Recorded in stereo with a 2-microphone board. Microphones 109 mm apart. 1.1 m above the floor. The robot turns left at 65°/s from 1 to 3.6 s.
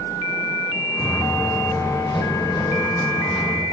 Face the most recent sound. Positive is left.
turn(degrees=-15)  # may be behind; listen again after turning